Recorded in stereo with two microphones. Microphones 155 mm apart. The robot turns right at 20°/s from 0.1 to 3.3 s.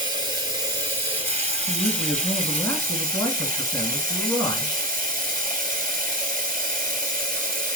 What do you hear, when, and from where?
0.0 s running water: 150° right, 1.6 m; by 7.8 s 85° right, 1.6 m
1.7 s a man speaking: 10° left (ahead or behind), 1.0 m; by 4.7 s 15° left (ahead or behind), 1.0 m